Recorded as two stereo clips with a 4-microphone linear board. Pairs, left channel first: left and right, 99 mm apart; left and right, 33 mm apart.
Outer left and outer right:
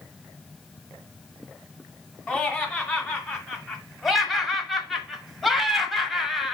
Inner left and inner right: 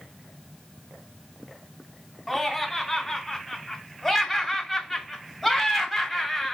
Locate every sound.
2.3 s laughter: centre (ahead or behind), 1.9 m